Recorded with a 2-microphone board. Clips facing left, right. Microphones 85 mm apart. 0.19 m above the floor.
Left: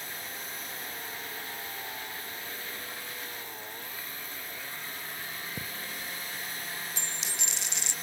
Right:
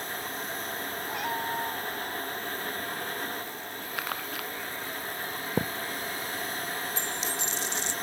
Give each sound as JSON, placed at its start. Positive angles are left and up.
{"t": 1.1, "sound": "a cat meowing", "side_deg": -75}
{"t": 4.0, "sound": "crumpling", "side_deg": -85}
{"t": 5.6, "sound": "a thud", "side_deg": -65}
{"t": 7.0, "sound": "a dropped coin", "side_deg": 75}